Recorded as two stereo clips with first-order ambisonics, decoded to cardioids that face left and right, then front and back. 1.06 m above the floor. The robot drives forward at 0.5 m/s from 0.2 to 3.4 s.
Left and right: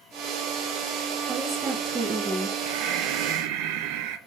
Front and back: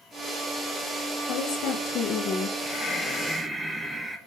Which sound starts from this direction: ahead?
A woman speaking, at 1.3 s.